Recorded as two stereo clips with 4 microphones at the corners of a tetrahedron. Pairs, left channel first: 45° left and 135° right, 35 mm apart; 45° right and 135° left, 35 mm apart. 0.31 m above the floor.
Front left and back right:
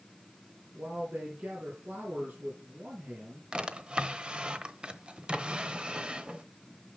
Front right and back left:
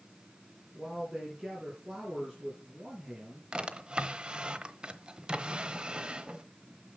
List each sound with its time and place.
0.7 s a man speaking: 150° right, 4 m
3.5 s a drawer: straight behind, 0.9 m